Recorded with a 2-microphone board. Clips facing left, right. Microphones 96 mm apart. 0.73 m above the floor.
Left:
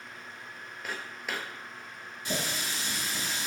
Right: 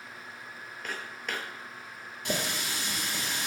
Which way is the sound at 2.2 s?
65° right (ahead or behind).